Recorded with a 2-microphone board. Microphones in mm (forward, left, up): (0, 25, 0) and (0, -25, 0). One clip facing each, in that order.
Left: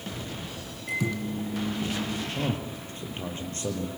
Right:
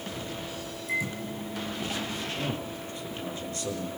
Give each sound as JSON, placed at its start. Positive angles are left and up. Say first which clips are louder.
{"t": 0.9, "sound": "a microwave", "louder": "left 2 dB", "side_deg": 65, "distance_m": 3.5}
{"t": 2.4, "sound": "a man speaking", "louder": "left 2 dB", "side_deg": 35, "distance_m": 4.0}